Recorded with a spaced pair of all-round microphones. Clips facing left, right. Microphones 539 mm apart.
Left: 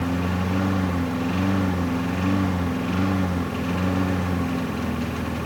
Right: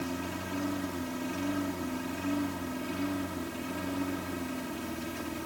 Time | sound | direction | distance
0.0 | a lawn mower | 85° left | ?